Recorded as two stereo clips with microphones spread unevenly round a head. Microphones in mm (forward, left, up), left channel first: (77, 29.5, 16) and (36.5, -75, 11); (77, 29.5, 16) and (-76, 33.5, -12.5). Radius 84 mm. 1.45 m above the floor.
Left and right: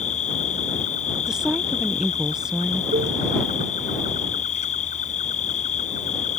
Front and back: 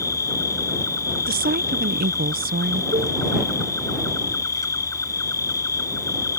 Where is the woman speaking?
165° left.